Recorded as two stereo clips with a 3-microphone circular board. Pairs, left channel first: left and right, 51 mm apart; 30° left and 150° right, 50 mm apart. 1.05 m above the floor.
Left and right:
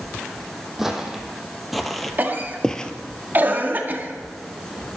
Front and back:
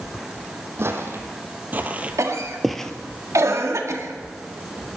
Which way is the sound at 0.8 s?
170° right.